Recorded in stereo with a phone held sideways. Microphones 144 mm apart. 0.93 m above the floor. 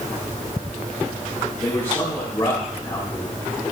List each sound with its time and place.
1.6 s a man speaking: 30° left (ahead or behind), 3 m